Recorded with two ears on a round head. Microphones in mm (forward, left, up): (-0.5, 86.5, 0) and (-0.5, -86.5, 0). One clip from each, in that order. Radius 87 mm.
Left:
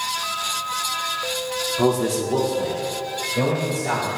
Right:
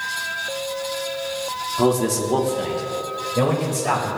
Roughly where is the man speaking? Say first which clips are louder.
Right 2 dB; centre.